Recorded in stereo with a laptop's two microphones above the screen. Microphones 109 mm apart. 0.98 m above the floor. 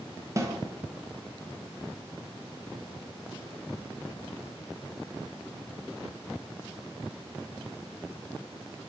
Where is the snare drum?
30° right (ahead or behind), 0.9 m.